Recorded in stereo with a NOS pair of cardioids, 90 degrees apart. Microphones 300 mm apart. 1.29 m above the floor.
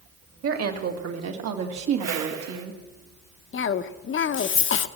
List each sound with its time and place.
0.4 s a woman speaking: 50° right, 2.5 m; by 2.8 s 80° right, 2 m
2.0 s a whoosh: 65° right, 1.6 m
3.5 s a cough: 45° left, 0.8 m